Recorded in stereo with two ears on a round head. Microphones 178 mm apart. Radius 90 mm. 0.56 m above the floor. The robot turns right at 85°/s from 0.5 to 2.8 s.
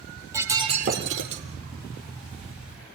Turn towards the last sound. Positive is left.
turn(degrees=30)